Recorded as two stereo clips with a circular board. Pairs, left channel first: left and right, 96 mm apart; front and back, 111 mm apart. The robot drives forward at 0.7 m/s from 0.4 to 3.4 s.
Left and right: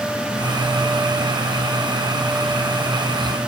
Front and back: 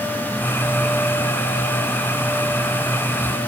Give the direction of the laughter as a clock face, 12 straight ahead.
No laughter in this recording.